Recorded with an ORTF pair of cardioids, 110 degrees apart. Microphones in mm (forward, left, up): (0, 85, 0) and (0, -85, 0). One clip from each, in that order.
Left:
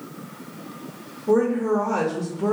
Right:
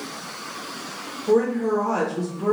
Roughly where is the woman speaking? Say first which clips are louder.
Even; ahead.